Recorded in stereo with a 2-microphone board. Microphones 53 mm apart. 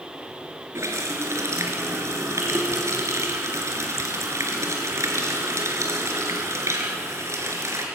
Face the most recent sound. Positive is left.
turn(degrees=-65)  # may be behind; listen again after turning